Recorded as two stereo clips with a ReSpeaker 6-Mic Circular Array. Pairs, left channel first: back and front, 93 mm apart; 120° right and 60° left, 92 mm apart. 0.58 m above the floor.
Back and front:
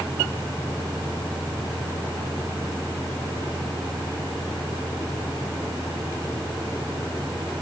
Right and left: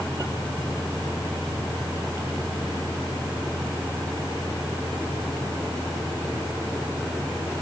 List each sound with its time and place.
Only background noise.